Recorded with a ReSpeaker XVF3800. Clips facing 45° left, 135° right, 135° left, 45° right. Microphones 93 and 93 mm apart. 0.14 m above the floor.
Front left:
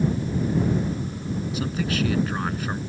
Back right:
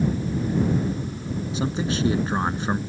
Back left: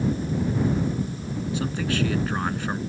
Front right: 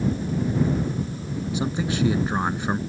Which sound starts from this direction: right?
A man speaking, at 1.5 s.